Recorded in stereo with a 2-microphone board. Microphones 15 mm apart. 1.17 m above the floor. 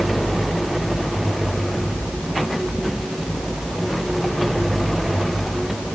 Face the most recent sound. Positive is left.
No sound to turn to.